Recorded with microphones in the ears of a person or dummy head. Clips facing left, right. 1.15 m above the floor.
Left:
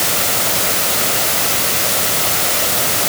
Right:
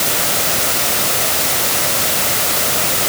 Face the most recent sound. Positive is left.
No sound to turn to.